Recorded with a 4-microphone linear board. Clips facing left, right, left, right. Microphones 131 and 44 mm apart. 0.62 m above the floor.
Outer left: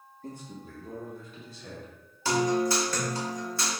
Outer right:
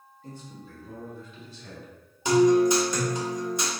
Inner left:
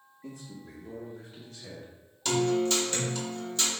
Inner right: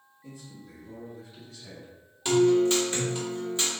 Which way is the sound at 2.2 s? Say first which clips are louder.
Outer right 7 dB, inner right 5 dB; 20° right (ahead or behind).